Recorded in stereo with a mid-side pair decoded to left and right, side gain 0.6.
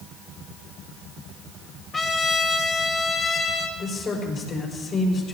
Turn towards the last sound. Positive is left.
turn(degrees=40)